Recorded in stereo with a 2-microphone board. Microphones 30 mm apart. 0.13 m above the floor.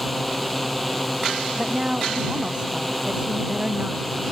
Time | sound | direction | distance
0.0 | a drone | 5° left (ahead or behind) | ?
1.6 | a woman speaking | 40° right (ahead or behind) | ?